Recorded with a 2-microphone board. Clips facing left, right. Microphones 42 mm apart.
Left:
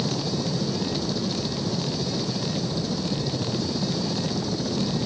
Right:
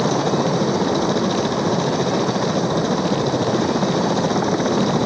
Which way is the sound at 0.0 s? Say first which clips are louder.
Right 9 dB; 55° right (ahead or behind).